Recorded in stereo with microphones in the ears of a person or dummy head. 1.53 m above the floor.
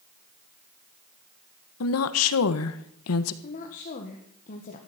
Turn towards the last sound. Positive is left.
turn(degrees=40)  # may be behind; listen again after turning